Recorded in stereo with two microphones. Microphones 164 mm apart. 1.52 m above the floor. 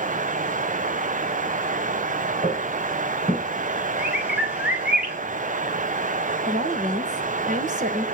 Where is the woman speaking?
50° right (ahead or behind), 2.5 m.